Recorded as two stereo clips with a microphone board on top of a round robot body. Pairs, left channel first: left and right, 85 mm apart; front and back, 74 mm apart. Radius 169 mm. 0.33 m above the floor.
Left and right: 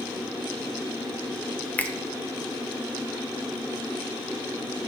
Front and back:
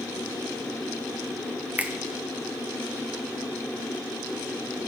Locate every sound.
1.8 s a finger snap: 140° left, 0.9 m